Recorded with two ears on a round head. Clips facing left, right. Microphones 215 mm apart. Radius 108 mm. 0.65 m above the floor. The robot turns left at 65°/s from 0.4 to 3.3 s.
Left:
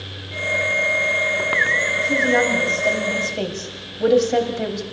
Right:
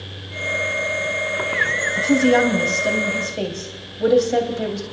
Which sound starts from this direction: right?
A woman speaking, at 1.9 s.